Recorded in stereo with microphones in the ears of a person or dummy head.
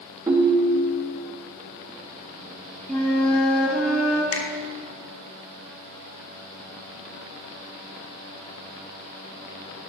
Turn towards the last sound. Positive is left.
turn(degrees=70)  # may be behind; listen again after turning